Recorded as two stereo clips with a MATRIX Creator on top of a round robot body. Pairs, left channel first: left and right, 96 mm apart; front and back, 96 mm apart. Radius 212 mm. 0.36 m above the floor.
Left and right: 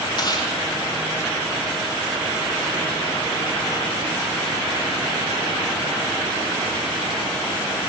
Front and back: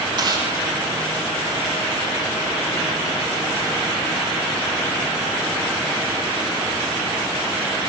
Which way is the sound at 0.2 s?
135° left.